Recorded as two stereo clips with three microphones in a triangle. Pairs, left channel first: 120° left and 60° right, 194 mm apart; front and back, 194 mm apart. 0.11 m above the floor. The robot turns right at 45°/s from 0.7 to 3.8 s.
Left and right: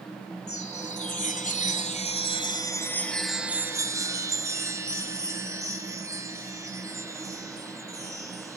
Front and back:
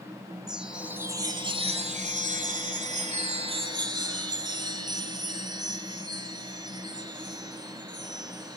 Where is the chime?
95° left, 0.8 m; by 8.6 s 125° right, 0.8 m.